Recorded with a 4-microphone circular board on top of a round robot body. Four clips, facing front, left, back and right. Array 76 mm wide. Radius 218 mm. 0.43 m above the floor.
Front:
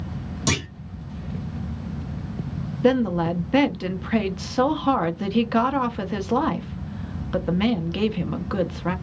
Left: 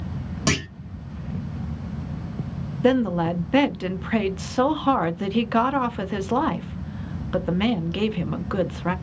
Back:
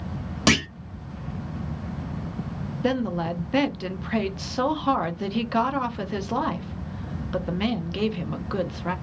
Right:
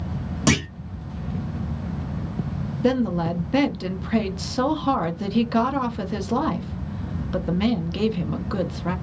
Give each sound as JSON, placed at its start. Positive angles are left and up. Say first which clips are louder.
{"t": 0.5, "sound": "a clunk", "louder": "right 3 dB, back 5 dB", "azimuth_deg": -175, "distance_m": 1.4}
{"t": 2.8, "sound": "a woman speaking", "louder": "left 2 dB, front 6 dB", "azimuth_deg": 65, "distance_m": 0.8}